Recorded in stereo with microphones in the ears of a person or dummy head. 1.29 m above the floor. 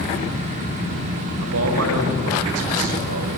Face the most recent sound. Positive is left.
turn(degrees=-85)